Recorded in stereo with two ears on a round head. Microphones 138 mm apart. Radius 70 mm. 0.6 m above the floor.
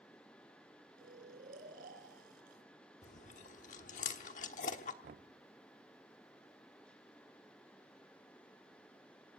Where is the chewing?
50° left (ahead or behind), 1.1 m.